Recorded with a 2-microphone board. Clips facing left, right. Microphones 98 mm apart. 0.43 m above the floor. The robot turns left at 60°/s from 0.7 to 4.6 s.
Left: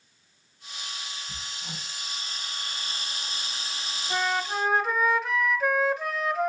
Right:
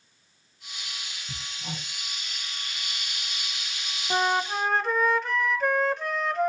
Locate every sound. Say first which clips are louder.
1.3 s hammering: right 2 dB; 60° right (ahead or behind), 8.5 m; by 1.9 s 85° right, 8.5 m
4.1 s a flute: right 3 dB; 155° right, 1.3 m; by 6.5 s 175° left, 1.3 m